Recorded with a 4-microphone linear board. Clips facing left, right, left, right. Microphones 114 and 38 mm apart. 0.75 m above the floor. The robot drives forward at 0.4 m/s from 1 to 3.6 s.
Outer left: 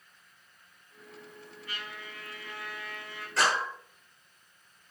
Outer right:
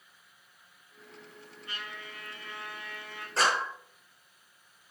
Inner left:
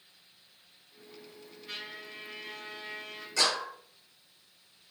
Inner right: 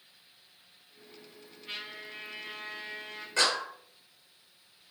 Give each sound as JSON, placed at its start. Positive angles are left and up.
{"t": 1.7, "sound": "a trumpet", "side_deg": -25, "distance_m": 7.0}
{"t": 3.4, "sound": "a clap", "side_deg": -30, "distance_m": 6.5}